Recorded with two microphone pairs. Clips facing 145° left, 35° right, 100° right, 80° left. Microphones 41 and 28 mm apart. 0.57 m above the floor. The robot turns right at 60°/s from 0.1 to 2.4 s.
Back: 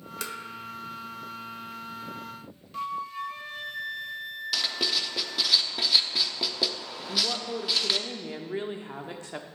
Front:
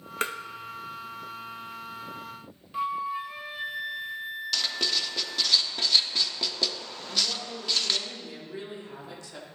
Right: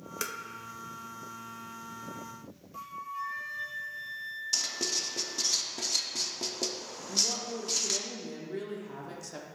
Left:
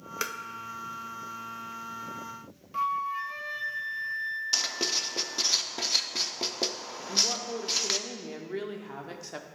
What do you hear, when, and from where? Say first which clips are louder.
0.2 s tapping: front 6 dB, left 3 dB; 15° left, 0.6 m; by 0.4 s 25° left, 0.6 m
2.7 s a flute: front 3 dB, left 10 dB; 40° left, 0.5 m
4.5 s writing: back 1 dB, left 1 dB; 65° left, 0.5 m
7.1 s a woman speaking: back 2 dB, left 3 dB; 120° left, 0.8 m